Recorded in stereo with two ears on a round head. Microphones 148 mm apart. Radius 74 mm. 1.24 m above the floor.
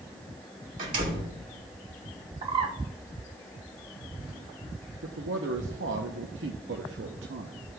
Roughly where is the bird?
Right.